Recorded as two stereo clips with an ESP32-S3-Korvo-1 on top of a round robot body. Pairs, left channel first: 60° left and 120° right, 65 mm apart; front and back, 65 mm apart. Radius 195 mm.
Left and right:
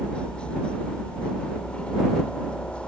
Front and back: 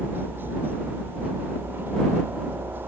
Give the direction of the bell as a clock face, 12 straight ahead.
I don't hear a bell.